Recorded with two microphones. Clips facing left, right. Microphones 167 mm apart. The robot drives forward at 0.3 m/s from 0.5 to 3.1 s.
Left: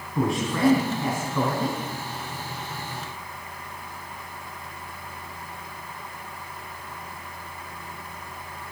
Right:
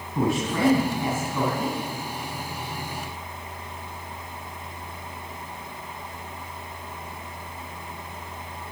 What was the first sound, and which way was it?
A man speaking, 20° right (ahead or behind).